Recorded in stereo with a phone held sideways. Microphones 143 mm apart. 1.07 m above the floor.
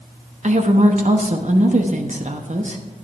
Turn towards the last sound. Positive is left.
turn(degrees=-55)  # may be behind; listen again after turning